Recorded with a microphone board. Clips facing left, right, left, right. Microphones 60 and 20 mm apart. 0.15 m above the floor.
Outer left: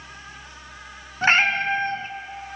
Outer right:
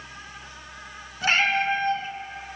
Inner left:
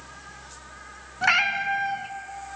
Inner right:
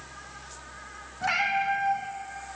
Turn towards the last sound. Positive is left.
turn(degrees=40)  # may be behind; listen again after turning